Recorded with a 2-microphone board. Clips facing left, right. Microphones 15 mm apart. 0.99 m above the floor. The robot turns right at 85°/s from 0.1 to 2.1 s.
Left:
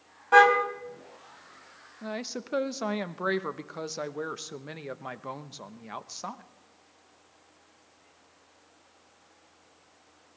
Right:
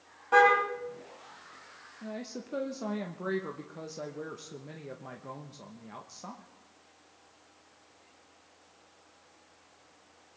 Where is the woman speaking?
50° left (ahead or behind), 0.8 m.